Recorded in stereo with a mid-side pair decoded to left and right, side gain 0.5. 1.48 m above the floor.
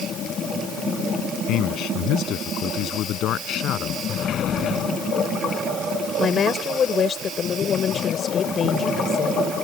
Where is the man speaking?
70° left; by 4.0 s 65° left.